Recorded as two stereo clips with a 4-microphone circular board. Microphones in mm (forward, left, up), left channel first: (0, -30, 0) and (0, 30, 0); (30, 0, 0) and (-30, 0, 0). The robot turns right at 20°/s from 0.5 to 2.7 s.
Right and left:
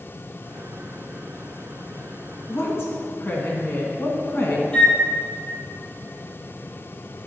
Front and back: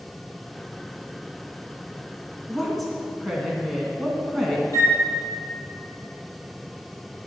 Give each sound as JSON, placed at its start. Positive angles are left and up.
{"t": 2.5, "sound": "a woman speaking", "azimuth_deg": -95, "distance_m": 2.0}
{"t": 4.7, "sound": "a flute", "azimuth_deg": -20, "distance_m": 1.4}